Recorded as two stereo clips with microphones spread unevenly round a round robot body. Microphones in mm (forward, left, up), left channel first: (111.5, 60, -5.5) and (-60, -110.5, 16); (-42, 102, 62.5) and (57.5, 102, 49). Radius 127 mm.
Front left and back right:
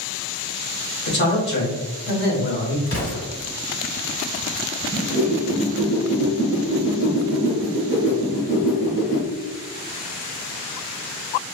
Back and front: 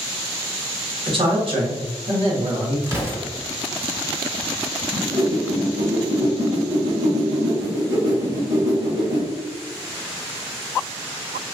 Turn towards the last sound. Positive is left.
turn(degrees=-15)